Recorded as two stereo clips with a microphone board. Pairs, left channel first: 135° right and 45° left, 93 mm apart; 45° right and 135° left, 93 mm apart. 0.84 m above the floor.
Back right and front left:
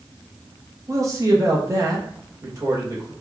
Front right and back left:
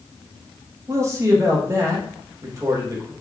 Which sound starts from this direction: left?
A man speaking, at 0.9 s.